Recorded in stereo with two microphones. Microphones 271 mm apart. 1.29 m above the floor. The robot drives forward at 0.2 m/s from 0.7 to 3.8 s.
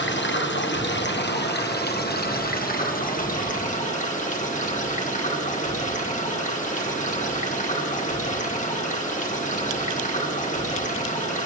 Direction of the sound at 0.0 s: 45° left (ahead or behind).